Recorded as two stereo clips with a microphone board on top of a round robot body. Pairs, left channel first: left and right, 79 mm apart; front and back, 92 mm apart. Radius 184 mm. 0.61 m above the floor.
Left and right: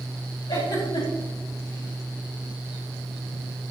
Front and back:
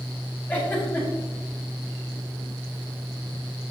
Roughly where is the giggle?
Left.